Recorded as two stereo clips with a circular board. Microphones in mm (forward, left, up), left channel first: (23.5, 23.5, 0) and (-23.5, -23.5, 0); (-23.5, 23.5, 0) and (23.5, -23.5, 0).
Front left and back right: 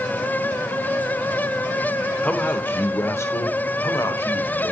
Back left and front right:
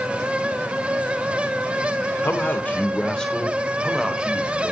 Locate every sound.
2.2 s a man speaking: 105° left, 1.2 m; by 4.7 s 30° left, 1.7 m